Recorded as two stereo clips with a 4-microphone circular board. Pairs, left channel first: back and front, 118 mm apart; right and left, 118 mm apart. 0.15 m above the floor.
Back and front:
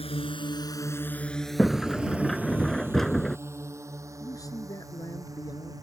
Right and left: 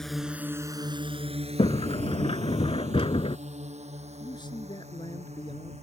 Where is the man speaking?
125° right.